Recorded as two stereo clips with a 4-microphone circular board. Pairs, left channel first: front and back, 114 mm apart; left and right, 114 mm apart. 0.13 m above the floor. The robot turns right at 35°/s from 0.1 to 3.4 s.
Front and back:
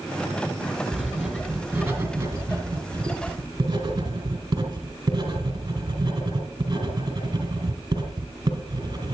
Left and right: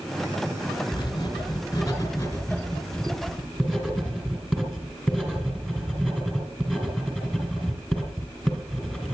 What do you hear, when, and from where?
0.9 s writing: 95° left, 2 m; by 9.1 s straight behind, 2 m